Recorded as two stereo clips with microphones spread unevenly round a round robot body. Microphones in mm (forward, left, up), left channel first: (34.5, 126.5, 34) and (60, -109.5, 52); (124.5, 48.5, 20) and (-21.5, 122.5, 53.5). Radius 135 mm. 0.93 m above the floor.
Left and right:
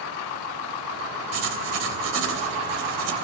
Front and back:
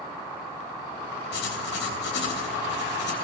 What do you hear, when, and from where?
1.3 s writing: 65° right, 3 m